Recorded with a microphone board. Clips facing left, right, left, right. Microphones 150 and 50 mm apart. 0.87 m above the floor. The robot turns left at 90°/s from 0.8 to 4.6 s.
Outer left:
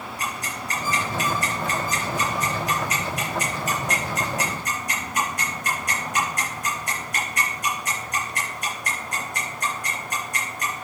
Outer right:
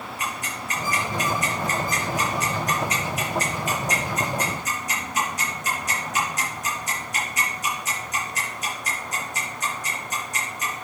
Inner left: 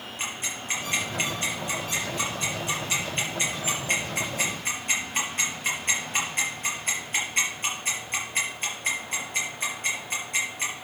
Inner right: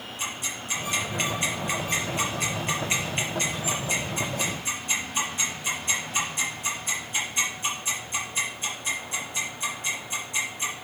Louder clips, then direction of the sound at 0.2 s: Outer left 1 dB, even; 40° left (ahead or behind).